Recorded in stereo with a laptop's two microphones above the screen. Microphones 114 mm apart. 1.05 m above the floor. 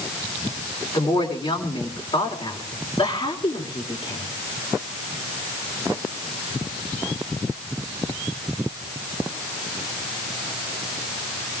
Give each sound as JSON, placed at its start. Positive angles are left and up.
{"t": 0.9, "sound": "a woman speaking", "side_deg": 55, "distance_m": 3.5}